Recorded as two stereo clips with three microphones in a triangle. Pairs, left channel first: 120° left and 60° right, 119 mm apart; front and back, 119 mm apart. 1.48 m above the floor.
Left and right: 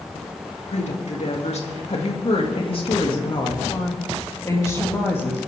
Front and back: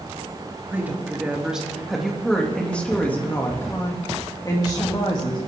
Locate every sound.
0.7 s a woman speaking: 105° left, 3 m; by 5.5 s 45° left, 3.5 m